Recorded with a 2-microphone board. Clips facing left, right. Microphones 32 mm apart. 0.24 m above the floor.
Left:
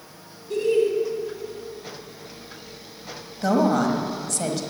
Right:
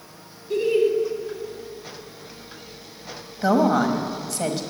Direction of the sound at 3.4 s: 15° right (ahead or behind).